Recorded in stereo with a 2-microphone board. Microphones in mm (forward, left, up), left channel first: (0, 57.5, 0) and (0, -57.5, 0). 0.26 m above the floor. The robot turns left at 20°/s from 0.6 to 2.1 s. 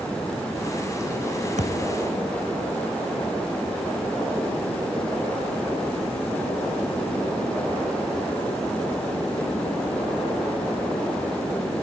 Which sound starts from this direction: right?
A thud, at 1.6 s.